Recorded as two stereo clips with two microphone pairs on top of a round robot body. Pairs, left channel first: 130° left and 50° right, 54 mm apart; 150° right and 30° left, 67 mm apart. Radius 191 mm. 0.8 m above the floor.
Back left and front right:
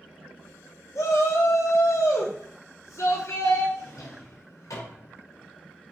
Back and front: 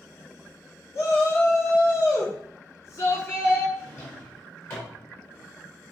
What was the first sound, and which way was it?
A shout, 155° left.